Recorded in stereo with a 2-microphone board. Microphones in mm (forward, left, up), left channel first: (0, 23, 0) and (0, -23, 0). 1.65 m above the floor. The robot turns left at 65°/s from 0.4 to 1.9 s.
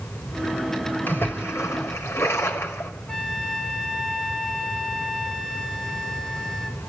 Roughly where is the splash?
Behind left.